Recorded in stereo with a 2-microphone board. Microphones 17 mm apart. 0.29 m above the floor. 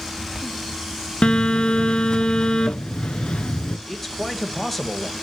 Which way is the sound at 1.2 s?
75° left (ahead or behind).